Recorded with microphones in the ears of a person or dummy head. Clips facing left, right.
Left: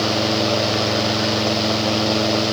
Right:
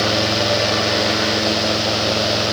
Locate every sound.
Only background noise.